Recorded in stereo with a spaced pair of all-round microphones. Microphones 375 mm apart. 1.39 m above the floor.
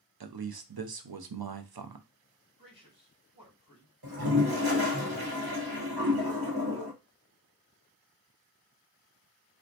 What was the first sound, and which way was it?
A man speaking, 70° right (ahead or behind).